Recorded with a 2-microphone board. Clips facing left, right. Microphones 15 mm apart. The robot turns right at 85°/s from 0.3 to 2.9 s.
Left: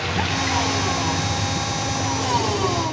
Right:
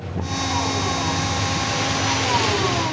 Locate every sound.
0.0 s a vehicle: 105° left; by 2.9 s 30° right